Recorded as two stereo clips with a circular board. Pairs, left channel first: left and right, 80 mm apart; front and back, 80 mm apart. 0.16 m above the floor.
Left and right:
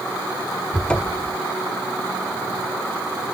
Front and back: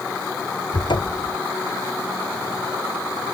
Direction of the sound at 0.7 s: 15° left.